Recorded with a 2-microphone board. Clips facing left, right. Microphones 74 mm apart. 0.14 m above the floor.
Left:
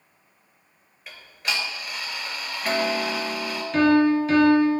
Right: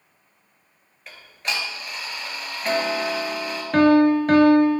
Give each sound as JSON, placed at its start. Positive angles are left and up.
{"t": 1.1, "sound": "ticking", "side_deg": 0, "distance_m": 0.8}
{"t": 3.7, "sound": "a piano", "side_deg": -55, "distance_m": 0.6}